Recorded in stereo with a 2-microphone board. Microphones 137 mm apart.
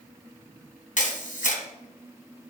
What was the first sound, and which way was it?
A camera shutter, 70° left (ahead or behind).